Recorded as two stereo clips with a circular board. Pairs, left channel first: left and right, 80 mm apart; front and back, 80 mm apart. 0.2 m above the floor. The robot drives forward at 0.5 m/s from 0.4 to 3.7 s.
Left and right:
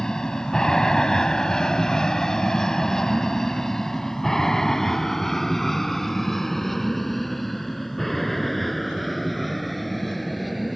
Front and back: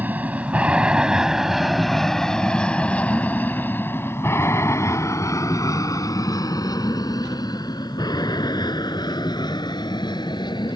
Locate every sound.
0.0 s an aircraft: 160° left; by 10.8 s straight ahead